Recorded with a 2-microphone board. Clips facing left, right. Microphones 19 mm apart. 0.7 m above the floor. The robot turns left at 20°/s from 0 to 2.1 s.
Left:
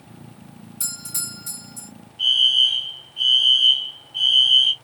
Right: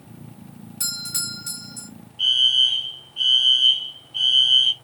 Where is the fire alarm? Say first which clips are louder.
Left 1 dB; 25° right (ahead or behind), 1.4 m.